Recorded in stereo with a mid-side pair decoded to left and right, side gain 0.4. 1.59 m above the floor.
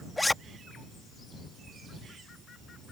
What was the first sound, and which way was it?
A zipper, 15° left.